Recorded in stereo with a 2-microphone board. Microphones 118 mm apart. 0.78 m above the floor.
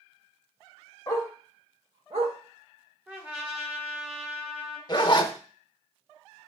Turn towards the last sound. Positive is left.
turn(degrees=35)  # may be behind; listen again after turning